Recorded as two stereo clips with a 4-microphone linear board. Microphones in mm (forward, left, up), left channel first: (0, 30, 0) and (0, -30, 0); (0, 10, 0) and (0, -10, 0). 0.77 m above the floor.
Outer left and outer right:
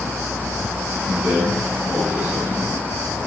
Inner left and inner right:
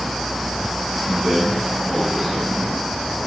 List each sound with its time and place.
1.1 s a man speaking: 30° right (ahead or behind), 7.5 m; by 2.8 s 25° right (ahead or behind), 8.5 m